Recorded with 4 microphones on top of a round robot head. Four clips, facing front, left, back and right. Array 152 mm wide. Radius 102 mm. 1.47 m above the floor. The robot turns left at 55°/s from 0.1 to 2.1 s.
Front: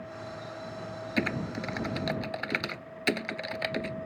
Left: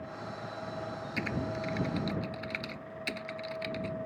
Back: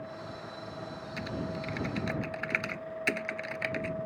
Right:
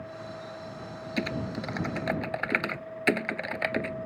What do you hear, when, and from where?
1.2 s typing on a keyboard: 20° right; by 4.0 s 70° right